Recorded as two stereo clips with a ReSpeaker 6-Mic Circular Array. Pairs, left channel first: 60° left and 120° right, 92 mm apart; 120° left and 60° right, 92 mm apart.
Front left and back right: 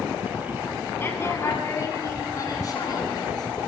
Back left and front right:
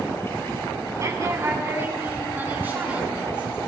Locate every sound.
1.0 s a woman speaking: 5° right, 7.5 m; by 3.6 s 15° left, 9 m